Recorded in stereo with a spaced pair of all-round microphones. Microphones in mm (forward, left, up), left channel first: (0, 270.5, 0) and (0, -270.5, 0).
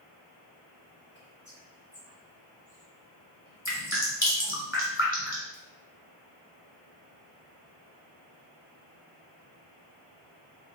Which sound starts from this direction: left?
Dripping, at 3.6 s.